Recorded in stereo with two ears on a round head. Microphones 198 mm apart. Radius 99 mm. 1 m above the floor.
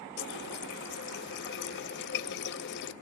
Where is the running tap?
50° left (ahead or behind), 0.6 m.